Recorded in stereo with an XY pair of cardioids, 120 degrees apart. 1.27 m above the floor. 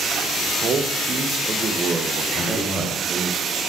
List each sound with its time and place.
0.6 s a man speaking: 40° right, 1.2 m
2.3 s a man speaking: 5° left, 2.5 m